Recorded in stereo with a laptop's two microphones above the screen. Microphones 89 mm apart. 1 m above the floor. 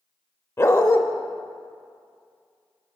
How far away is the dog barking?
About 0.8 m.